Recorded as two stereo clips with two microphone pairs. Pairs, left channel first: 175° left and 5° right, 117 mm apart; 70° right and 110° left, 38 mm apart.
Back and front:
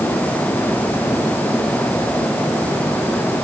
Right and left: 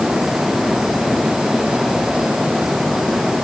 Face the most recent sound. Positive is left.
No sound to turn to.